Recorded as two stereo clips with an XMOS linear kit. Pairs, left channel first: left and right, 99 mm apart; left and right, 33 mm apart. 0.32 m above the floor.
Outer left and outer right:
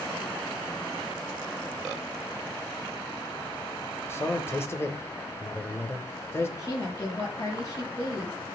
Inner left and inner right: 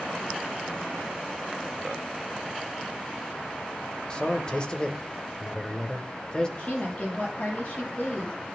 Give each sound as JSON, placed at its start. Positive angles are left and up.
{"t": 4.1, "sound": "a man speaking", "side_deg": 25, "distance_m": 1.1}
{"t": 6.6, "sound": "a woman speaking", "side_deg": 40, "distance_m": 8.5}